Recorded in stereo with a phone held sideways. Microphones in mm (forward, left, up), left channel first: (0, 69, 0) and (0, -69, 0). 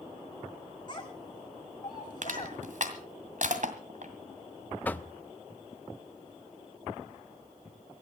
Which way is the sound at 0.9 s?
35° left (ahead or behind).